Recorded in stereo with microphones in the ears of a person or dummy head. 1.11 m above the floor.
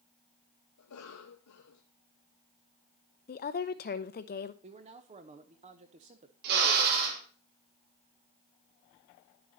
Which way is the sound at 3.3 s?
40° left (ahead or behind).